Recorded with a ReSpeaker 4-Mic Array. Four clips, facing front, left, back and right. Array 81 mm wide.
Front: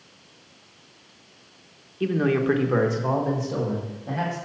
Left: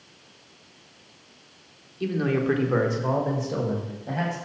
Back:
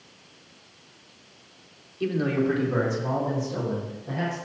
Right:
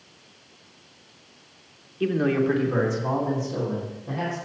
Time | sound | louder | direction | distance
2.0 | a man speaking | right 3 dB, front 2 dB | 60° right | 0.9 m